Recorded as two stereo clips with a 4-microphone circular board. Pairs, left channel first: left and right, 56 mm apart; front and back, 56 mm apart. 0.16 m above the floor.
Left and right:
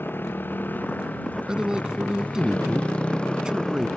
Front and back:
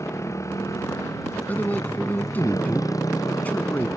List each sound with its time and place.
0.0 s a motorcycle: 35° left; by 4.0 s 15° left
1.5 s a man speaking: 25° right